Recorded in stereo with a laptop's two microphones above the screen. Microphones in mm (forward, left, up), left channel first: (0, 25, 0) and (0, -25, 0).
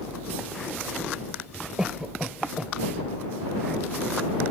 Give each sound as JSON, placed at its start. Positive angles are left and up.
{"t": 1.8, "sound": "a cough", "side_deg": -15}